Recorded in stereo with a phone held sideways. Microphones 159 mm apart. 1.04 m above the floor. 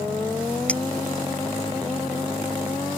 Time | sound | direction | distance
0.7 | a clink | 10° left (ahead or behind) | ?